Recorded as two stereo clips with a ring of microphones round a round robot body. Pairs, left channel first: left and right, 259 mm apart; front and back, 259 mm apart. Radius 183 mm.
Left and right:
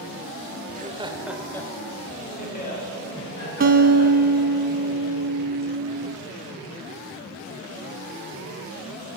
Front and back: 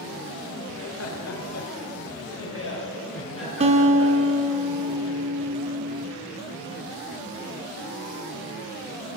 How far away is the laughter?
About 1.4 m.